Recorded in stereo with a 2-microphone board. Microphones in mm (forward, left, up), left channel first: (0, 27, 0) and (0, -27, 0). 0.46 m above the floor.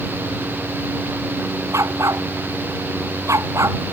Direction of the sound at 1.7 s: 60° right (ahead or behind).